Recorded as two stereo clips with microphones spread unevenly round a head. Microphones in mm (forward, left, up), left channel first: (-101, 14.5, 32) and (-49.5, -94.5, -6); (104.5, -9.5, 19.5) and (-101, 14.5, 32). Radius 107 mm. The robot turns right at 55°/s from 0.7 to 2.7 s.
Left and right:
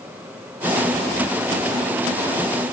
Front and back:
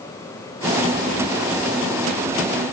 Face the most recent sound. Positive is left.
No sound to turn to.